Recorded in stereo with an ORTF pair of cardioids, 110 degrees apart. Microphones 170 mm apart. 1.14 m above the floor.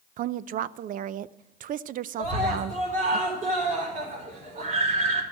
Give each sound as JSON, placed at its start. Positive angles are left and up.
{"t": 0.2, "sound": "a woman speaking", "azimuth_deg": -55, "distance_m": 0.5}
{"t": 2.2, "sound": "a scream", "azimuth_deg": -50, "distance_m": 4.0}